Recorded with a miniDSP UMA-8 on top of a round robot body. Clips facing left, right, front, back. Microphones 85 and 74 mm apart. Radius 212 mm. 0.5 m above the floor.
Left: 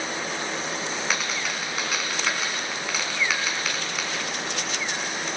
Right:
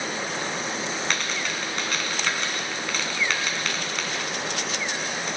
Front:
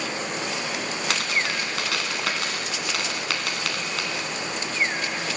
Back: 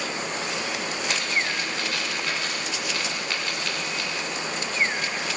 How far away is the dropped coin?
About 1.6 m.